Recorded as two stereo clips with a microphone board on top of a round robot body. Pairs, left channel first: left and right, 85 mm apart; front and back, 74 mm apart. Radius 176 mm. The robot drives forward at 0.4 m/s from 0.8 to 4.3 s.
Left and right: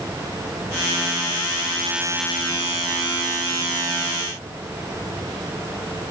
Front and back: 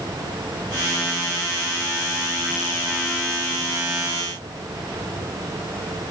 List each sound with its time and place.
Only background noise.